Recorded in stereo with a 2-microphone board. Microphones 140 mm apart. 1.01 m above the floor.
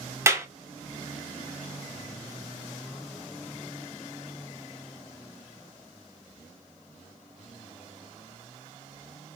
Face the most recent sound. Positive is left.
turn(degrees=-20)  # may be behind; listen again after turning